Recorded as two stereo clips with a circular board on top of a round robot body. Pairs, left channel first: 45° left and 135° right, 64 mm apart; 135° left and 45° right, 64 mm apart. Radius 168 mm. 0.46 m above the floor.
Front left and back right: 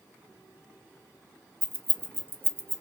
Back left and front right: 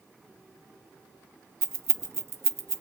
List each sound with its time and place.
1.6 s keys jangling: 85° right, 0.7 m